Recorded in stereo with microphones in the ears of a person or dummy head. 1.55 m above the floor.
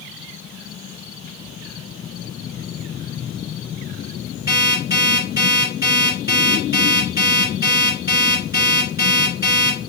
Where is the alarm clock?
20° right (ahead or behind), 2.0 m.